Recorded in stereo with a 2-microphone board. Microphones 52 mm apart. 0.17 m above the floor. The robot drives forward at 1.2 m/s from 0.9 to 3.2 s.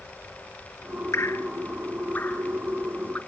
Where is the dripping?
65° left (ahead or behind), 0.8 m; by 3.2 s 15° left (ahead or behind), 2.5 m.